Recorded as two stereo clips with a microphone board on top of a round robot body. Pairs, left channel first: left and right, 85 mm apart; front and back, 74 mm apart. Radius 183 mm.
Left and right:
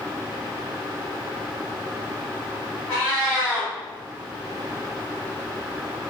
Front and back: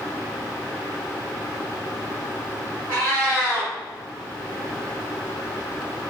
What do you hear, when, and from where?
2.9 s a cat meowing: 140° left, 0.7 m